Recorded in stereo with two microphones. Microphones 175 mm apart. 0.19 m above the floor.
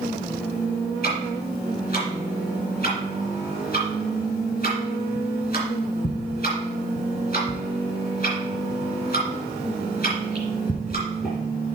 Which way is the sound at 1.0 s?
55° left (ahead or behind).